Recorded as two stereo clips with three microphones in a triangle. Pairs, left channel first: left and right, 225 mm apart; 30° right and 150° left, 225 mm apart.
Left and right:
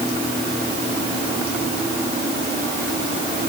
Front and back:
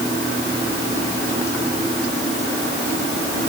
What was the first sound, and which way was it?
Only background noise.